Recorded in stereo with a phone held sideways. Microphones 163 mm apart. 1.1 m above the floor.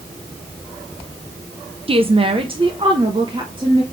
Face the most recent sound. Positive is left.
turn(degrees=-30)  # may be behind; listen again after turning